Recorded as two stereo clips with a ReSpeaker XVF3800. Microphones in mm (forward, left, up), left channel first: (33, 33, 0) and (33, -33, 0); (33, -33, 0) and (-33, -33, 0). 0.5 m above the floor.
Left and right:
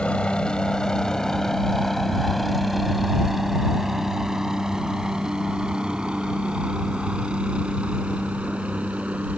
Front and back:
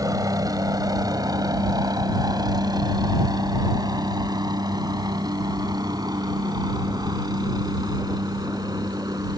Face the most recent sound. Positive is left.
turn(degrees=-160)